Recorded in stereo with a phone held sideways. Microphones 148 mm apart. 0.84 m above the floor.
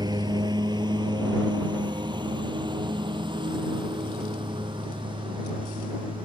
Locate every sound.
0.0 s a lawn mower: 30° right (ahead or behind); by 6.2 s 35° right (ahead or behind)